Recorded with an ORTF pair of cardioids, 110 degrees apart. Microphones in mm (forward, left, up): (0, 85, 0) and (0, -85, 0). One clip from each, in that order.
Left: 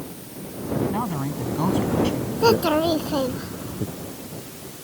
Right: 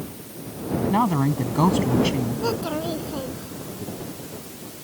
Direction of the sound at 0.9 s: 40° right.